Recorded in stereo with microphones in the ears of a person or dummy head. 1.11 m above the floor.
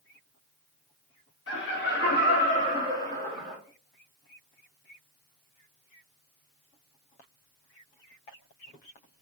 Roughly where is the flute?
I don't hear a flute.